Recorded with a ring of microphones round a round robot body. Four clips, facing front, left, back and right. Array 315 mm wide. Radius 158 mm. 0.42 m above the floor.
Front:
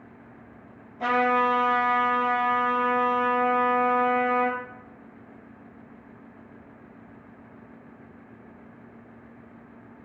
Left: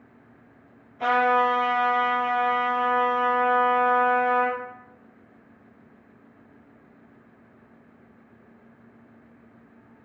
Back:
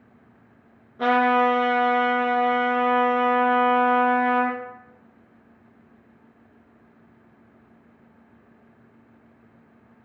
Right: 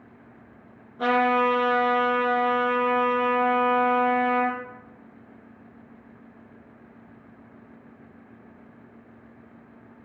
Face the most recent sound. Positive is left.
turn(degrees=-145)